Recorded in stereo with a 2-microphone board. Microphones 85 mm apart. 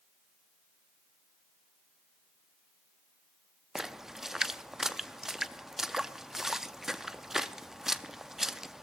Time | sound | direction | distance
3.8 | a splash | 5° right (ahead or behind) | 0.5 m